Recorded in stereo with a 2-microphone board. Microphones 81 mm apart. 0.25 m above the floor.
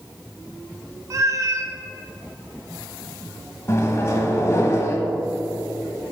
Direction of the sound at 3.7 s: 35° left (ahead or behind).